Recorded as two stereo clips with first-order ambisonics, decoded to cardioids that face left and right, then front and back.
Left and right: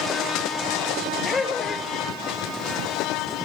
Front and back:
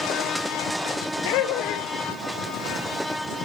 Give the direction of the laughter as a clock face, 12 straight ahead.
11 o'clock.